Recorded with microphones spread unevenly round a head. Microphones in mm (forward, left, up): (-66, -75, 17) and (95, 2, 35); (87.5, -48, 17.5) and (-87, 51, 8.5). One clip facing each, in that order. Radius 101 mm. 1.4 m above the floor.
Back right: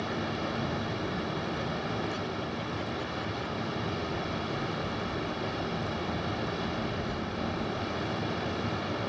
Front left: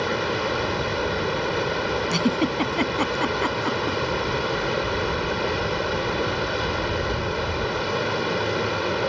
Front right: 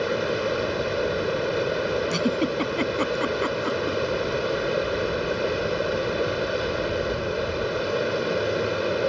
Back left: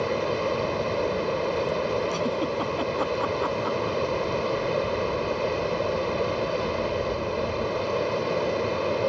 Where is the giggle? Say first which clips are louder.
Front left 12 dB, front right 3 dB; 30° left.